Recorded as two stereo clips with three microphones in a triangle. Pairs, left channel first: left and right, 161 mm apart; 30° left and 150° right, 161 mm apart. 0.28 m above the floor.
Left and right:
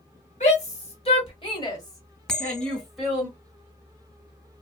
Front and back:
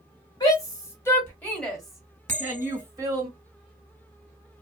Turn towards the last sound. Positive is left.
turn(degrees=175)